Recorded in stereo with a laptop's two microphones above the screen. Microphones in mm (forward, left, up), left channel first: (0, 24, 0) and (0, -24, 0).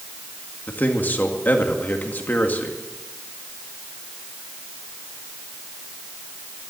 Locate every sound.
0.7 s a man speaking: 40° left (ahead or behind), 2 m